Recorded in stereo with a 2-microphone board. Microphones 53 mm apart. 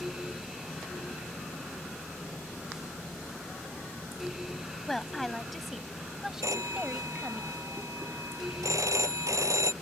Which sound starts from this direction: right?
A phone ringing, at 6.4 s.